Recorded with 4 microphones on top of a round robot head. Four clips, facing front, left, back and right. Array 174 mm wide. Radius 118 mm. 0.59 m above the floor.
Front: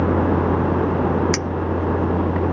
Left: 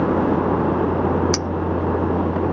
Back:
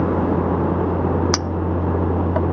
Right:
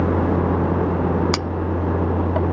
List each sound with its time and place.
1.3 s a clink: 150° right